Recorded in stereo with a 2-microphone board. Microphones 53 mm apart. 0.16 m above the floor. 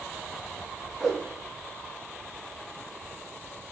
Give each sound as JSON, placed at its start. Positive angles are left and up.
{"t": 1.0, "sound": "a whoosh", "side_deg": -5, "distance_m": 2.0}